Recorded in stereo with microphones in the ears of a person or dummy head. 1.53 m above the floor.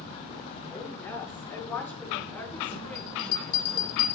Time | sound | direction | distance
0.7 | a woman speaking | 15° left (ahead or behind) | 6 m
3.0 | a bell | 70° left (ahead or behind) | 2 m